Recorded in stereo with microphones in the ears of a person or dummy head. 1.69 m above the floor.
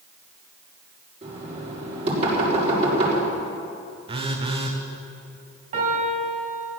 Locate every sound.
1.2 s knocking: 35° right (ahead or behind), 5.5 m
4.1 s a phone buzzing: 25° right (ahead or behind), 1.2 m
5.7 s a piano: 35° right (ahead or behind), 2.5 m